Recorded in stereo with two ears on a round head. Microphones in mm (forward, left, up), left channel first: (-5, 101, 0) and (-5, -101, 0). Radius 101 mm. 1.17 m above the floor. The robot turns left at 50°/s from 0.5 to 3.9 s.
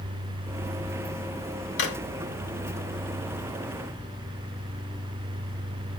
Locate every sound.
1.8 s a drawer: 50° left (ahead or behind), 1.2 m